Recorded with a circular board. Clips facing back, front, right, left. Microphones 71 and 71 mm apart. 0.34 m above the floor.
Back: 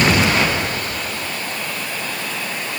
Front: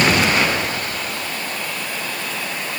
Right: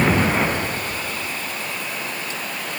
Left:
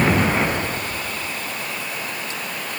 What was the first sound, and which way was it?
Only background noise.